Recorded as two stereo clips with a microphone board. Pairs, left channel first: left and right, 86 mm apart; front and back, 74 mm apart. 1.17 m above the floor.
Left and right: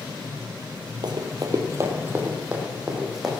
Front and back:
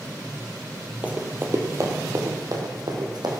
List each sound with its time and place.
1.0 s running footsteps: 110° right, 2 m; by 3.3 s straight behind, 4 m